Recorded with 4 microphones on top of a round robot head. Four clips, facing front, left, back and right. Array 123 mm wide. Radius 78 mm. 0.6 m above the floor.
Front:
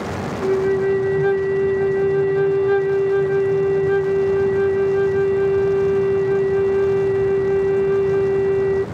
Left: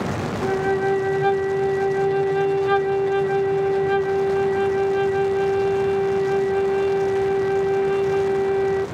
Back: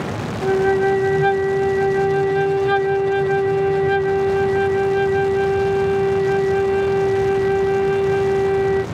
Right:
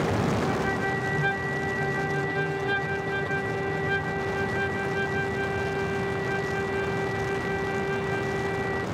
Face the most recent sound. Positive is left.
turn(degrees=155)